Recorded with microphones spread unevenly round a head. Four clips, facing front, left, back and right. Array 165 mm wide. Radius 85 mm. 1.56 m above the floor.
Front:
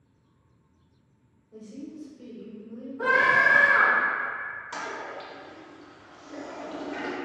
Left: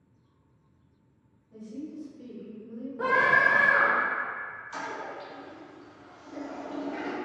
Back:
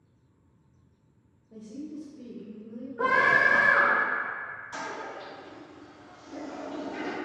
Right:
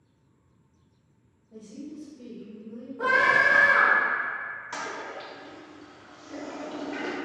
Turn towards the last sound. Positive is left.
turn(degrees=-60)